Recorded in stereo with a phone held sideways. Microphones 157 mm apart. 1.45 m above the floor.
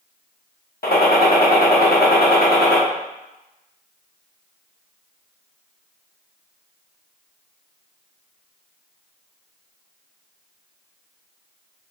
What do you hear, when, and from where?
0.8 s a gunshot: 75° left (ahead or behind), 0.9 m